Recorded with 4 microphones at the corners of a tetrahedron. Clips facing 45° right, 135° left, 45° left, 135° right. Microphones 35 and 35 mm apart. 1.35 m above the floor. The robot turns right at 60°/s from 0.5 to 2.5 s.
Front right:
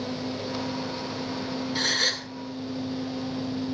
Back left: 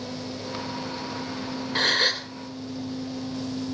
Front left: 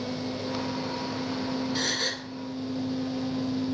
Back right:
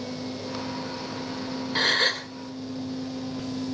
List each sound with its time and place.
1.8 s a gasp: 170° left, 1.6 m; by 2.3 s 155° right, 1.6 m